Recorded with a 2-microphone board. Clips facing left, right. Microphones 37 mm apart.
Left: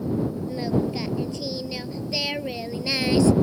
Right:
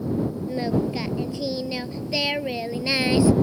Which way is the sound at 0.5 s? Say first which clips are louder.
Right 1 dB; 15° right (ahead or behind).